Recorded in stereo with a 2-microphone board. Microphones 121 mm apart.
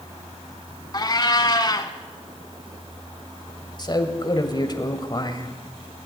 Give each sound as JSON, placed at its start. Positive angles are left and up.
{"t": 0.9, "sound": "a cat meowing", "side_deg": 35, "distance_m": 0.8}
{"t": 3.8, "sound": "a man speaking", "side_deg": 35, "distance_m": 1.2}